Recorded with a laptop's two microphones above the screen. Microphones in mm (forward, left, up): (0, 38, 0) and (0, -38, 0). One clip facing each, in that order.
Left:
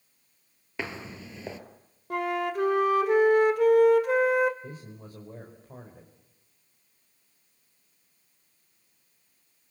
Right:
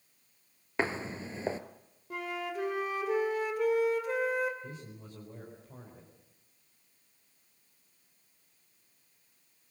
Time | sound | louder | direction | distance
0.8 | footsteps | right 4 dB | 35° right (ahead or behind) | 1.2 m
2.1 | a flute | left 8 dB | 65° left (ahead or behind) | 1.9 m
4.6 | a man speaking | left 3 dB | 45° left (ahead or behind) | 4 m